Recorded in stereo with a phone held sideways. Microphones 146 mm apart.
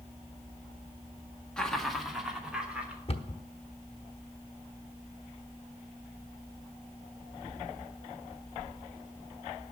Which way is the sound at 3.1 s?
40° left (ahead or behind).